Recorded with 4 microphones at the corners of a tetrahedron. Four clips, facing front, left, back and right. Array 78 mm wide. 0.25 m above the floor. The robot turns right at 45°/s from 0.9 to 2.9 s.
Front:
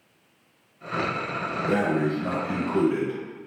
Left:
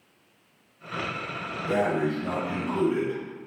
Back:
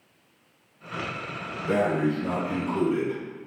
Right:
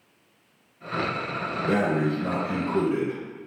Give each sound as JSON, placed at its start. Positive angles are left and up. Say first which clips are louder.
{"t": 1.7, "sound": "breathing", "louder": "right 1 dB, back 1 dB", "azimuth_deg": -80, "distance_m": 3.5}